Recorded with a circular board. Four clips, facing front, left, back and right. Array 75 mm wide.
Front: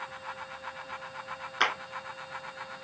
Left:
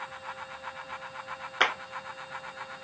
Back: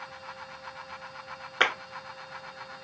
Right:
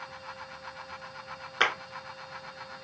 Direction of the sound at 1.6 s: 170° left.